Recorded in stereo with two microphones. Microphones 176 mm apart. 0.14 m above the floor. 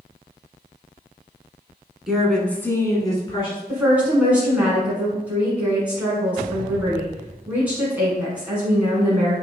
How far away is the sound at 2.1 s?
About 1.2 m.